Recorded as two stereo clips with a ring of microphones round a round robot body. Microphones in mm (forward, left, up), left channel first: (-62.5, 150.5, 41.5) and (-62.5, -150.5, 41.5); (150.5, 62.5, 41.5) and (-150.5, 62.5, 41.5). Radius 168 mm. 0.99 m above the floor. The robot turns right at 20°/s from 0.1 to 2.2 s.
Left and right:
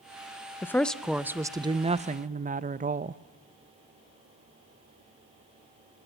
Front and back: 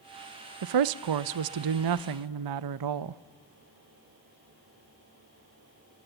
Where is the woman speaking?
175° left, 0.6 m; by 3.2 s 155° right, 0.6 m.